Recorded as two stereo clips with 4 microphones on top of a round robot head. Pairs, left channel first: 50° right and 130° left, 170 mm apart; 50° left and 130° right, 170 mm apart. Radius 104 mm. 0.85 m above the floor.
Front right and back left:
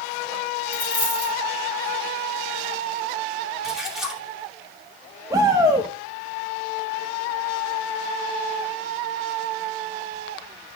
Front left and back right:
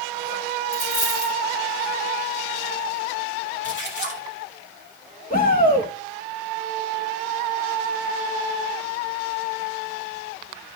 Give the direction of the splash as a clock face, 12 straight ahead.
11 o'clock.